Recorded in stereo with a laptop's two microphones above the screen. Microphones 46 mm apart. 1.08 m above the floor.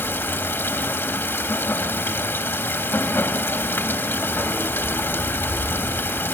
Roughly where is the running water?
Left.